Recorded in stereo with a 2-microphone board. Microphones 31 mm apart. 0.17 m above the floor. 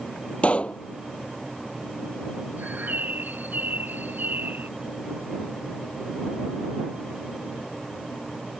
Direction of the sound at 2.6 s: 85° right.